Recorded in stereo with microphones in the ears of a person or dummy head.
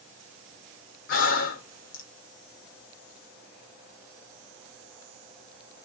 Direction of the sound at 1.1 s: 60° left (ahead or behind).